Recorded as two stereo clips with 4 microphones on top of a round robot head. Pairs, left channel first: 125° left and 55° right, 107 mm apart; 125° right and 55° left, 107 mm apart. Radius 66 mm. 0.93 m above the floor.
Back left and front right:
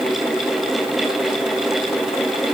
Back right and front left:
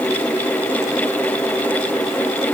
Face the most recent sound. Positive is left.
No sound to turn to.